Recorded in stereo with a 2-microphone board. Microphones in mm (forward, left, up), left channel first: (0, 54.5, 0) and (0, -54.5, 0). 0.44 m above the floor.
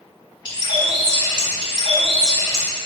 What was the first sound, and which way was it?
A bird, 45° left (ahead or behind).